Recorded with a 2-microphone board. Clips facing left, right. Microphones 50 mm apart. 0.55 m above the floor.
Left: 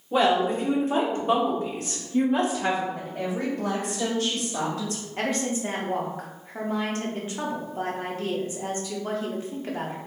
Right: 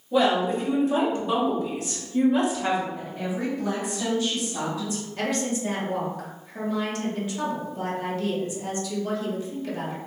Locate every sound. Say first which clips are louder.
0.1 s a woman speaking: even; 35° left (ahead or behind), 1.4 m
2.9 s a woman speaking: left 1 dB; 65° left (ahead or behind), 1.7 m
5.2 s a woman speaking: even; 35° left (ahead or behind), 1.0 m